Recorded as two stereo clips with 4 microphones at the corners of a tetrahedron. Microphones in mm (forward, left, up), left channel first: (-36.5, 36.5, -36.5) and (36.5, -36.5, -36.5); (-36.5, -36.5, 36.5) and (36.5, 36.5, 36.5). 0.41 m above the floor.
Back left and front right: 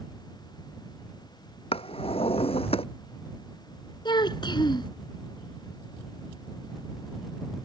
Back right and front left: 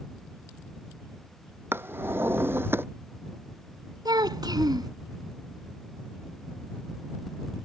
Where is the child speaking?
95° left.